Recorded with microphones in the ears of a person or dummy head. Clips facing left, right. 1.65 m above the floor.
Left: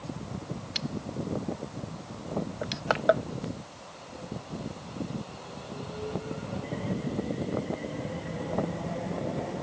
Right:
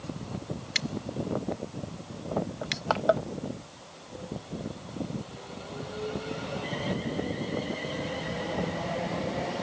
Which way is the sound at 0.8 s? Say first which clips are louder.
Right 1 dB; 25° right (ahead or behind).